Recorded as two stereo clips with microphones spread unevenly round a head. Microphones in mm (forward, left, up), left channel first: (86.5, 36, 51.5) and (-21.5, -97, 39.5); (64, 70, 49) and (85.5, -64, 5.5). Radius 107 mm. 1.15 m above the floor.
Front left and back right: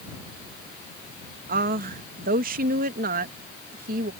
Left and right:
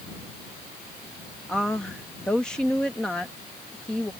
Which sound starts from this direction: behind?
A woman speaking, at 1.5 s.